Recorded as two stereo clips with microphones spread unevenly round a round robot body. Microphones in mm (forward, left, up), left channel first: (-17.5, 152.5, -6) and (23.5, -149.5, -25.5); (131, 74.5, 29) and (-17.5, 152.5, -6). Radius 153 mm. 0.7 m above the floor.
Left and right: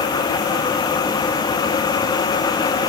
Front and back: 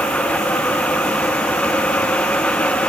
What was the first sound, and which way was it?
Only background noise.